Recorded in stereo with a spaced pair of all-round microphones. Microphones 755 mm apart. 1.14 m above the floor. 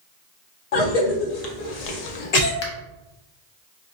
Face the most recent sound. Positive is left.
turn(degrees=40)  # may be behind; listen again after turning